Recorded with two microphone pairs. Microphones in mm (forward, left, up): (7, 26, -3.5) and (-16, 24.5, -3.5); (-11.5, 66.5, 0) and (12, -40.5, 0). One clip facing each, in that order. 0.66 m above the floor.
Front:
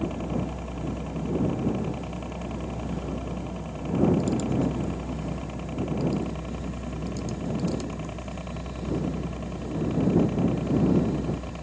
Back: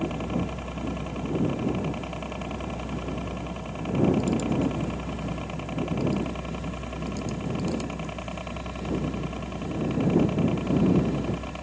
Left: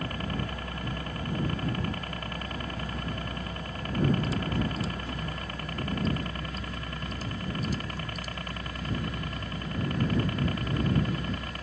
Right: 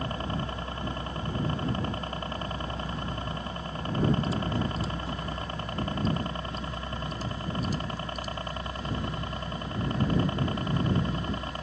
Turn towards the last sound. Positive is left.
turn(degrees=-120)